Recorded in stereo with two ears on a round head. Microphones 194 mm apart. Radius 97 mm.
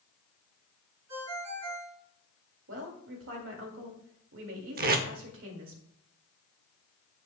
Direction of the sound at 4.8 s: 45° right (ahead or behind).